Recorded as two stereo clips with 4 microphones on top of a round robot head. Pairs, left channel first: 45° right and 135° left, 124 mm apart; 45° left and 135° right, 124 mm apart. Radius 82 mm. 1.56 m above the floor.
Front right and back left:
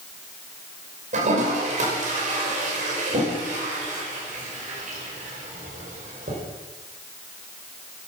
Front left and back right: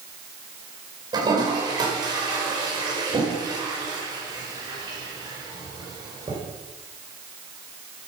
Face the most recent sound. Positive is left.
turn(degrees=165)